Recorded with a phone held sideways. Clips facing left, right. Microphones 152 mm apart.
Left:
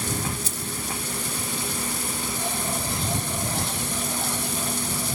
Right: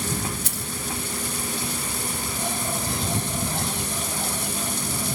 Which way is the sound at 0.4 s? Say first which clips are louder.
Even; 80° right.